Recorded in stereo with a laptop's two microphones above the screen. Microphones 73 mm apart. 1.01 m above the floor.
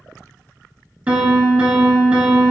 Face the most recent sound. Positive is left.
turn(degrees=-20)  # may be behind; listen again after turning